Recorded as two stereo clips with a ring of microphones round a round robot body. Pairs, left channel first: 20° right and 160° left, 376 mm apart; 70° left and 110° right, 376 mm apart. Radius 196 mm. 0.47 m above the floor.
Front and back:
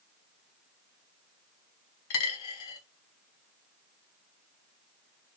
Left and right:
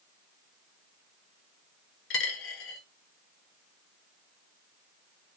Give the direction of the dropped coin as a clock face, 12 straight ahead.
11 o'clock.